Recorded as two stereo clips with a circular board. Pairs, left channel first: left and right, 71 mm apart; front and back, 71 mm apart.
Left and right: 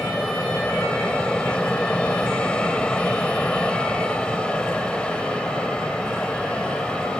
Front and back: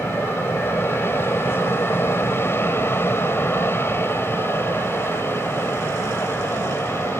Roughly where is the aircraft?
Ahead left.